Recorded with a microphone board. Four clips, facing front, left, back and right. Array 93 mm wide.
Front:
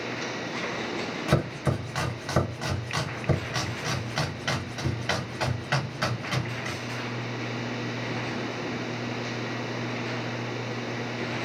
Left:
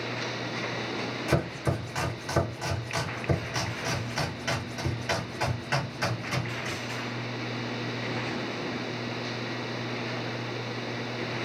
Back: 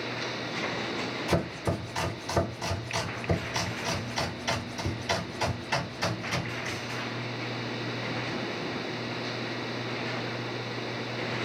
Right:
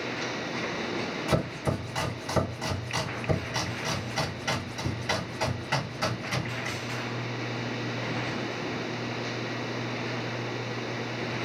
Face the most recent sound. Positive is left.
turn(degrees=10)